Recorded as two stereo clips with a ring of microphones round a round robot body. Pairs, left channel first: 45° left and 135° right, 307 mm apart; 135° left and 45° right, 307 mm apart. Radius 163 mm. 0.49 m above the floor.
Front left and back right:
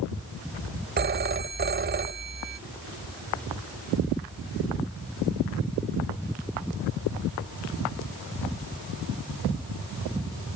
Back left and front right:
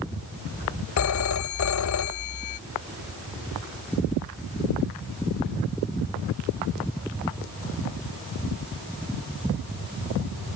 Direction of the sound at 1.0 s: 165° left.